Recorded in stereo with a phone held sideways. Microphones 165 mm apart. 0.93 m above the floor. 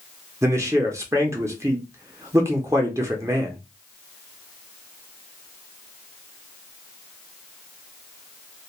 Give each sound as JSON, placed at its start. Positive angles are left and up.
{"t": 0.4, "sound": "a man speaking", "side_deg": -20, "distance_m": 0.6}